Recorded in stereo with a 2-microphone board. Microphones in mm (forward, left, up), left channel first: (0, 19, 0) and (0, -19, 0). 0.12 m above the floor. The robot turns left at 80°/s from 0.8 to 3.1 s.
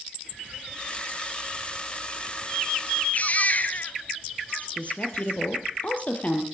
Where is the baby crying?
45° left (ahead or behind), 1.5 m.